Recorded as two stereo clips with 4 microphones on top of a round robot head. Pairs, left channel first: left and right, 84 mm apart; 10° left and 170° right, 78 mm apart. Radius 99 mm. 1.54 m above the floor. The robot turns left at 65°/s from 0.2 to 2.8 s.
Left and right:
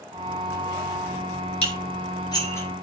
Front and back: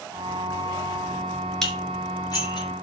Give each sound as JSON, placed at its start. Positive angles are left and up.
{"t": 1.6, "sound": "dishes clattering", "azimuth_deg": 95, "distance_m": 6.0}